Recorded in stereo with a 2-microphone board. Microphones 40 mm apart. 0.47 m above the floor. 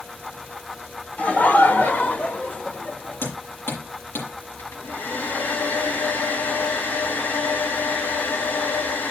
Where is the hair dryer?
60° left (ahead or behind), 4.5 m.